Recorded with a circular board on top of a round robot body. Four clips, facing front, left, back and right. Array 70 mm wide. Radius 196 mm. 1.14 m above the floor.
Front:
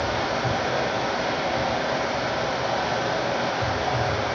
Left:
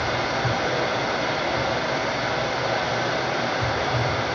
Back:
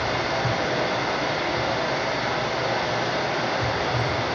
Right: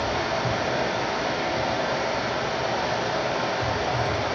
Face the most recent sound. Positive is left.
turn(degrees=95)